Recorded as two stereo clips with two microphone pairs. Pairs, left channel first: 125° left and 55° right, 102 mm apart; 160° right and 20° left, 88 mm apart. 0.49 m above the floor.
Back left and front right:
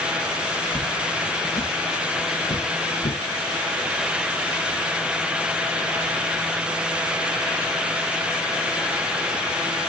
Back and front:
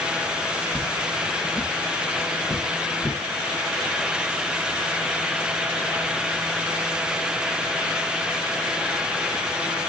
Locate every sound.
0.7 s footsteps: 135° left, 6 m